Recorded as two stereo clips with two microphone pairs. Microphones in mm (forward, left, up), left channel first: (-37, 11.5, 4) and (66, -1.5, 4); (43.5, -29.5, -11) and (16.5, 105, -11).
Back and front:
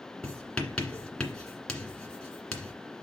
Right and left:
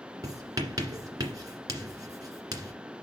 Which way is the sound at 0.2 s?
100° left.